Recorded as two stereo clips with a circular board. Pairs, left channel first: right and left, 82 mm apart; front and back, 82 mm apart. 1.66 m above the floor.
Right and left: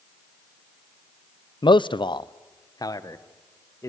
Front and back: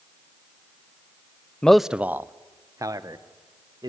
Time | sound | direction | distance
1.6 | a man speaking | 80° right | 0.5 m